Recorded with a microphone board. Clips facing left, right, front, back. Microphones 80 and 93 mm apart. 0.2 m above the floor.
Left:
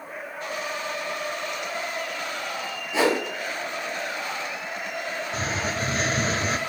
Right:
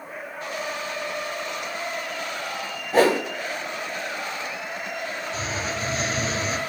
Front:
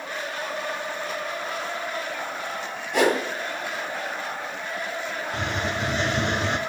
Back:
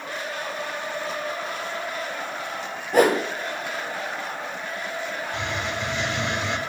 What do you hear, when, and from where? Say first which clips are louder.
2.9 s a whoosh: right 4 dB, back 3 dB; 135° right, 1.4 m
5.3 s a hiss: left 3 dB, front 3 dB; 50° left, 0.8 m